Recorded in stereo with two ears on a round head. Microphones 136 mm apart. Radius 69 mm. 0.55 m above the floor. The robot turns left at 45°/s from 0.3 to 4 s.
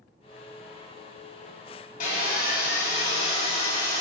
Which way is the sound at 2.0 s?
110° left.